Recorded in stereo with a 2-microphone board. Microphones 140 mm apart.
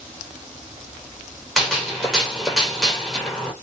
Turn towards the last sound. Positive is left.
turn(degrees=0)  # may be behind; listen again after turning